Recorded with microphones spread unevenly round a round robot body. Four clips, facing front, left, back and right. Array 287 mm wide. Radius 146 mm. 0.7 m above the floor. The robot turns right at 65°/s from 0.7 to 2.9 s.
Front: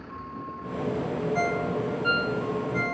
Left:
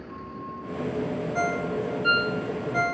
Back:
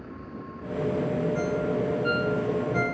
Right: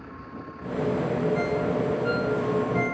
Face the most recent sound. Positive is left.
turn(degrees=130)